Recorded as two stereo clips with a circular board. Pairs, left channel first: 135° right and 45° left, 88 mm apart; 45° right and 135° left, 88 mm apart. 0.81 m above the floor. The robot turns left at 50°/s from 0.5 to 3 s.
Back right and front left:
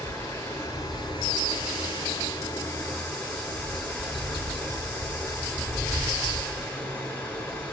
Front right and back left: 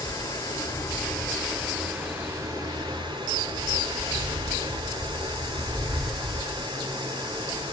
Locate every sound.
0.0 s running water: 80° right, 1.4 m; by 7.7 s 155° left, 1.4 m